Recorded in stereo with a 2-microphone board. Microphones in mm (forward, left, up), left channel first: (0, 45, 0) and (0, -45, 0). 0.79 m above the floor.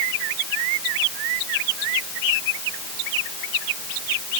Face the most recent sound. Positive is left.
No sound to turn to.